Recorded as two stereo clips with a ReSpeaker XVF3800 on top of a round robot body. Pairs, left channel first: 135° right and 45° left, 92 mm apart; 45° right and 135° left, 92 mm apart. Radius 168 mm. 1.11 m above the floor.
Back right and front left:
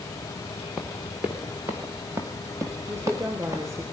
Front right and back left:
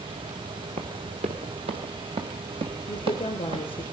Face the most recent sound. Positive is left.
turn(degrees=-15)